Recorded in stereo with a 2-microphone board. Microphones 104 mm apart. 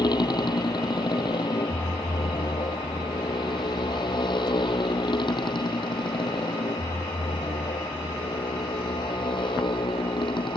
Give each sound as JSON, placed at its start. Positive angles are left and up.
{"t": 0.0, "sound": "a motorcycle", "side_deg": 45}